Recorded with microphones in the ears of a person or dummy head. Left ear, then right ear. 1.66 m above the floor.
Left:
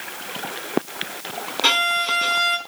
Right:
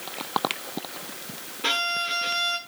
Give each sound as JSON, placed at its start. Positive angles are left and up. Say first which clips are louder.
{"t": 1.6, "sound": "a violin", "louder": "left 6 dB", "side_deg": 75, "distance_m": 4.5}